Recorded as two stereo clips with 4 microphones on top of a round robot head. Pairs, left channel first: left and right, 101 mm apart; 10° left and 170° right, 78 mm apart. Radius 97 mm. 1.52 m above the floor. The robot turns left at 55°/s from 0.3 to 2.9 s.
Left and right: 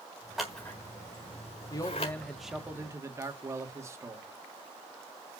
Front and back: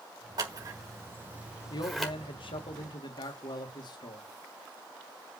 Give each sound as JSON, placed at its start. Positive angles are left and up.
{"t": 0.4, "sound": "scissors", "azimuth_deg": -175, "distance_m": 1.4}
{"t": 1.7, "sound": "a man speaking", "azimuth_deg": 40, "distance_m": 2.0}